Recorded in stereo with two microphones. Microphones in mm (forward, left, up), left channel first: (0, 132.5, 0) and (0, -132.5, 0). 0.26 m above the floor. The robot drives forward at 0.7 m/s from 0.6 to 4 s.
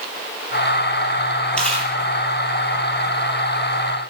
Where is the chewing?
5° left (ahead or behind), 6 m.